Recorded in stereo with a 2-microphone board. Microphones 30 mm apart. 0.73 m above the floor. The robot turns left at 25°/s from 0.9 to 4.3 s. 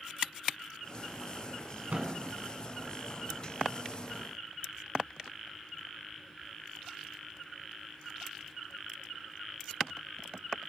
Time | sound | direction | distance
1.9 | a thud | 60° right (ahead or behind) | 3.5 m